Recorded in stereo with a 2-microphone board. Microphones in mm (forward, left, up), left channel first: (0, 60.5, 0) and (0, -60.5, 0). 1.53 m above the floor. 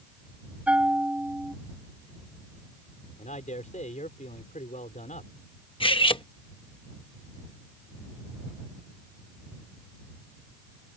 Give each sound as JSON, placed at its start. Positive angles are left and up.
{"t": 0.7, "sound": "a bell", "side_deg": -10}
{"t": 3.2, "sound": "a man speaking", "side_deg": 80}
{"t": 5.8, "sound": "cutlery clinking", "side_deg": 45}